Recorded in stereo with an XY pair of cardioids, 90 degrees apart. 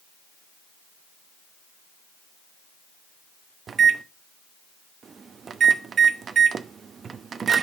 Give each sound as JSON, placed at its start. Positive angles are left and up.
{"t": 3.7, "sound": "a microwave", "azimuth_deg": -55, "distance_m": 0.8}